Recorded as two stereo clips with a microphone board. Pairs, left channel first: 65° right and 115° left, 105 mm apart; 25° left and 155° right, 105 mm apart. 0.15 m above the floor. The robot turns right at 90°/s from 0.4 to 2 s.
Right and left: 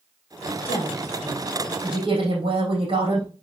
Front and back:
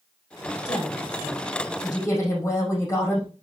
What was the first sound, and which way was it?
A woman speaking, 35° right.